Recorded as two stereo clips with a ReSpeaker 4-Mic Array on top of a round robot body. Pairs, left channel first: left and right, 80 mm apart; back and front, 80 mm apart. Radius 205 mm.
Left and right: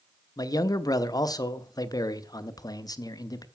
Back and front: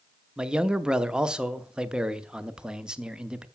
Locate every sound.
0.4 s a man speaking: 80° left, 1.0 m